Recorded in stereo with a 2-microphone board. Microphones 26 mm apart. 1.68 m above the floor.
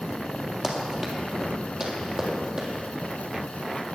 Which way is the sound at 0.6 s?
30° right (ahead or behind).